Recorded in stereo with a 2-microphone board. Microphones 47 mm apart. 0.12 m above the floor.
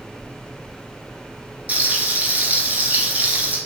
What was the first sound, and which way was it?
Frying, 35° right (ahead or behind).